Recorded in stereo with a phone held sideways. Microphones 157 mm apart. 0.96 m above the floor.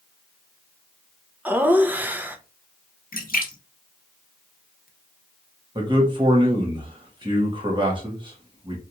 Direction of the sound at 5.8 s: 30° right (ahead or behind).